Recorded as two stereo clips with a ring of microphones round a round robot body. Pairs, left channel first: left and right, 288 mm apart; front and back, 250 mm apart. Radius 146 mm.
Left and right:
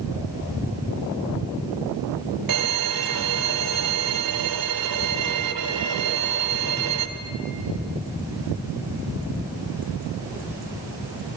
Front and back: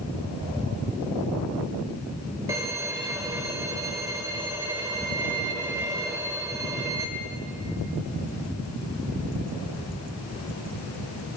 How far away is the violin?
About 1.0 m.